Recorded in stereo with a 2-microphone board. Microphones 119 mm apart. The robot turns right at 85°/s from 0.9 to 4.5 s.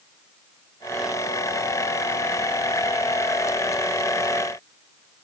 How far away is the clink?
No clink in this recording.